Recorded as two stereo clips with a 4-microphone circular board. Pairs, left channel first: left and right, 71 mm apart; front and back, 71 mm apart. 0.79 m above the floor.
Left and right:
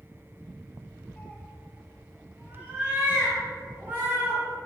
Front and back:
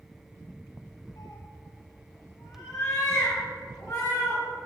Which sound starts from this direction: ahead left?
A cat meowing, at 1.2 s.